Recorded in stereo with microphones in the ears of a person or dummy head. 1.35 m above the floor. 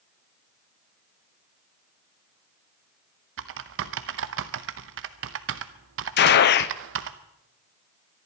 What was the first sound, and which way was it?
Typing on a keyboard, 65° right (ahead or behind).